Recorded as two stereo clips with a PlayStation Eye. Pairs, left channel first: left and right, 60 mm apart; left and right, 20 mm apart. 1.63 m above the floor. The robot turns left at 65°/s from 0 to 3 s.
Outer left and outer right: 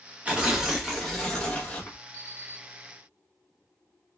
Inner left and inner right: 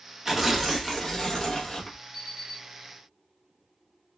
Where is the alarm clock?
90° right, 1.3 m; by 2.6 s 120° right, 1.3 m.